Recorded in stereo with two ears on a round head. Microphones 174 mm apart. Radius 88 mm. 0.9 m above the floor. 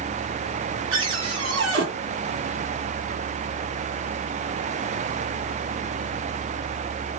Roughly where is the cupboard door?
Right.